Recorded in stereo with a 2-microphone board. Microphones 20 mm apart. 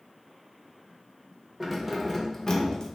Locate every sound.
1.6 s keys jangling: 15° right (ahead or behind), 0.7 m; by 2.9 s 50° left (ahead or behind), 0.6 m